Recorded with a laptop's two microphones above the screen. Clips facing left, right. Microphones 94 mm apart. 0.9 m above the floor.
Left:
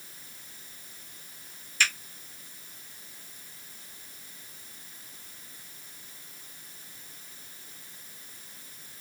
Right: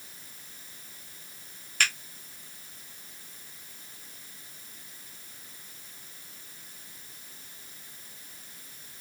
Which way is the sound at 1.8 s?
60° right (ahead or behind).